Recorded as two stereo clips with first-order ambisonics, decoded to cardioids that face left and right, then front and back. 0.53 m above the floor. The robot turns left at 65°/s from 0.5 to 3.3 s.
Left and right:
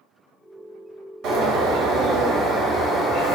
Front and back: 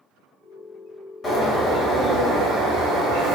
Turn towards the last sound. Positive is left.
turn(degrees=155)